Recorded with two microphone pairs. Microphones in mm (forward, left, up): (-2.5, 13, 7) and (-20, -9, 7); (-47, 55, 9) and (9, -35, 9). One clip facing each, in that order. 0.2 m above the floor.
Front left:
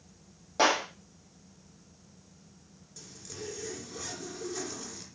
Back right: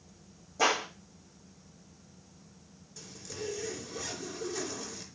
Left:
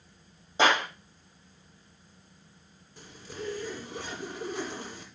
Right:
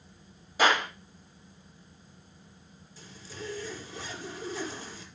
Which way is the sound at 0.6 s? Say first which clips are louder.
Front left 2 dB, left 1 dB; 55° left.